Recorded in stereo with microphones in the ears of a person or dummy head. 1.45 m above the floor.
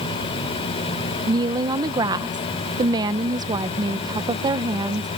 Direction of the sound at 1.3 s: 20° right (ahead or behind).